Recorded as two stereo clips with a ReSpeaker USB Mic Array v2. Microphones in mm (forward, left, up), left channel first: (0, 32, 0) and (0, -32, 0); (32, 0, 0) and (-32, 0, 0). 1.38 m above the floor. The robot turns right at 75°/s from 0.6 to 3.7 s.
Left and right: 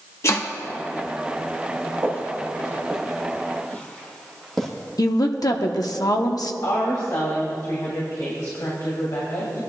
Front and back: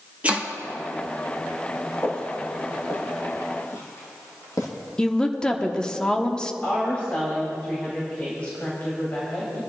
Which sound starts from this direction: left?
A woman speaking, at 5.0 s.